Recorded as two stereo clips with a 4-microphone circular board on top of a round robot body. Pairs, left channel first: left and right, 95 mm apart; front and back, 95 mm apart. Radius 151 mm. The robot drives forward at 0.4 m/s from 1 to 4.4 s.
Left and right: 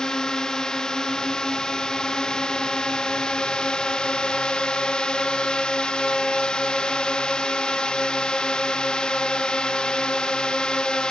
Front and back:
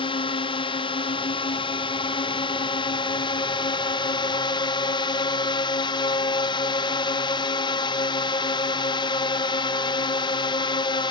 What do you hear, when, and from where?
0.0 s a drone: 5° left; by 11.1 s 10° left